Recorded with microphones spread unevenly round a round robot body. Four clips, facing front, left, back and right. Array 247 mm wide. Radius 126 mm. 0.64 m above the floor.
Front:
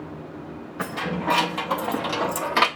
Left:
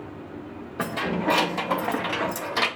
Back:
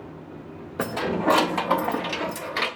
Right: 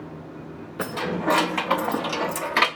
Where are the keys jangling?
170° left, 1.4 m; by 2.7 s 10° right, 1.1 m.